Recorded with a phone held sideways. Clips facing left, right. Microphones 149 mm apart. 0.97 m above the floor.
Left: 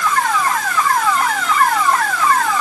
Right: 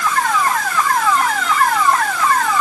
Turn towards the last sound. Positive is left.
No sound to turn to.